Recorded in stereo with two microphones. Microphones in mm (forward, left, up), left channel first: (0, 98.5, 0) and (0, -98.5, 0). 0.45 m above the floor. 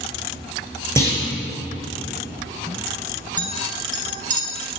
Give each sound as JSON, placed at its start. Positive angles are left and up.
{"t": 1.0, "sound": "a clunk", "side_deg": 15, "distance_m": 3.0}
{"t": 3.4, "sound": "a clink", "side_deg": -40, "distance_m": 1.3}